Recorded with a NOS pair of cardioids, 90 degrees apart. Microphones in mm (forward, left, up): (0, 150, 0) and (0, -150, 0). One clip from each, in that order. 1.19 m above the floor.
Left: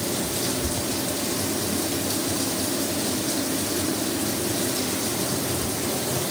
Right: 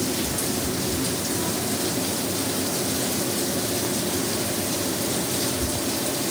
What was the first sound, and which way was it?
Only background noise.